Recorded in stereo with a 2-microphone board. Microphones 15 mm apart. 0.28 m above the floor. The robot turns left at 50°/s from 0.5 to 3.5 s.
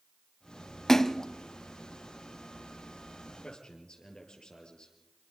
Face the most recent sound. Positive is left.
turn(degrees=75)  # may be behind; listen again after turning